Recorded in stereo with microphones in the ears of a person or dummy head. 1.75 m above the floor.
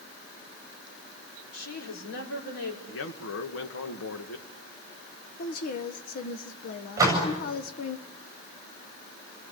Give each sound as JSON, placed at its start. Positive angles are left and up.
{"t": 1.5, "sound": "a woman speaking", "side_deg": 85, "distance_m": 5.5}
{"t": 2.9, "sound": "a man speaking", "side_deg": 75, "distance_m": 1.7}
{"t": 5.4, "sound": "a woman speaking", "side_deg": 50, "distance_m": 1.1}
{"t": 7.0, "sound": "a door slam", "side_deg": -15, "distance_m": 7.5}